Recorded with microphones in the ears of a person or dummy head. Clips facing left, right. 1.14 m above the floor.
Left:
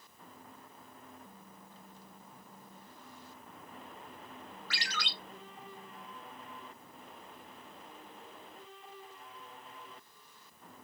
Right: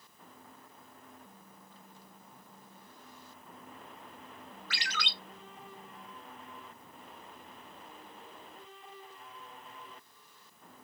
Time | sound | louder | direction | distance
4.7 | a ringtone | right 2 dB | 25° right (ahead or behind) | 5 m